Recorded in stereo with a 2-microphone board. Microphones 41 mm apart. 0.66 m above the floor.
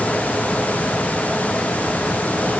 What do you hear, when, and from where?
Only background noise.